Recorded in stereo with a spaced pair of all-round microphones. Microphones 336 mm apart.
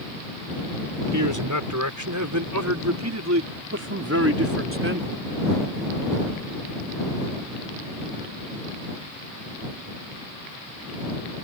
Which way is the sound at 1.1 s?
70° right (ahead or behind).